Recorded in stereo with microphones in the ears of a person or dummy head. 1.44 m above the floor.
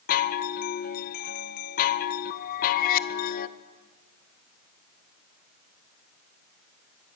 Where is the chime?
50° left (ahead or behind), 1.4 m.